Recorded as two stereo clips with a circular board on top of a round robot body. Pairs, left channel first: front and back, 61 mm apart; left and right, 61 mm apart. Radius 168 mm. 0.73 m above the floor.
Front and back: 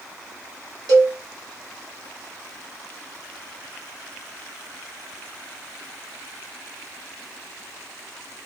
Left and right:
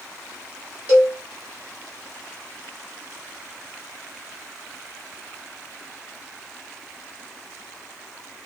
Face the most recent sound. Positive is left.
turn(degrees=-155)